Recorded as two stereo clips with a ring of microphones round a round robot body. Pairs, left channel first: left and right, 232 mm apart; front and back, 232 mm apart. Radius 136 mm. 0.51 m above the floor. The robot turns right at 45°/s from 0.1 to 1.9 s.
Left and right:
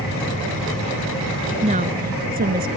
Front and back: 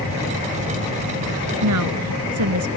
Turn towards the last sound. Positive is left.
turn(degrees=-150)